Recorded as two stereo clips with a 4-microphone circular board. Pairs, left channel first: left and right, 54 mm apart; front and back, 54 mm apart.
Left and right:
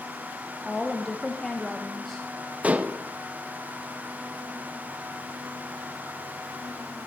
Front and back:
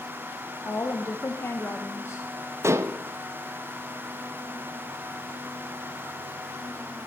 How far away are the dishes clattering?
About 0.5 m.